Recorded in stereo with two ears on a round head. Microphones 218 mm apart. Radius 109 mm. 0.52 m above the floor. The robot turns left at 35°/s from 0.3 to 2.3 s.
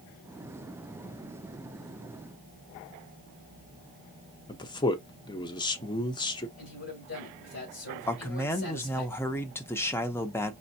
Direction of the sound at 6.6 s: 40° left (ahead or behind).